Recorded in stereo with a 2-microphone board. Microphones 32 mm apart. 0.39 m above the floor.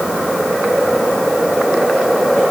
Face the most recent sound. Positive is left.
No sound to turn to.